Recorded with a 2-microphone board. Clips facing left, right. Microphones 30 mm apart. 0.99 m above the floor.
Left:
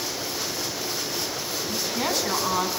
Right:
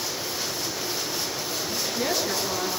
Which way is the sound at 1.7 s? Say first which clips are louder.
Left 1 dB; 55° left (ahead or behind).